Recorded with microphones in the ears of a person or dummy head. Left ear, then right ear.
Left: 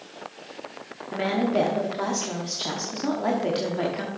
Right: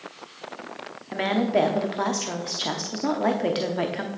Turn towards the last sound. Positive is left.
turn(degrees=-15)  # may be behind; listen again after turning